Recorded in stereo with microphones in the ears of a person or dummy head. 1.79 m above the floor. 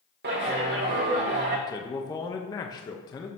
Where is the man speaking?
20° left (ahead or behind), 0.7 m.